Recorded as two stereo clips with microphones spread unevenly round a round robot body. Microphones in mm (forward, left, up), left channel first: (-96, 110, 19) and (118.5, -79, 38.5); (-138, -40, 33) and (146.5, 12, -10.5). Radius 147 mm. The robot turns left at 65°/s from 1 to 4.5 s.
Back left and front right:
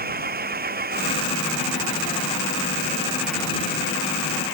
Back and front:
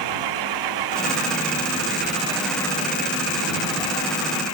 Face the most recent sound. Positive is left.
turn(degrees=150)